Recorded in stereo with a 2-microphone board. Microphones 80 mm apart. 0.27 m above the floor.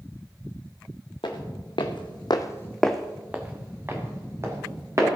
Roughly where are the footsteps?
Left.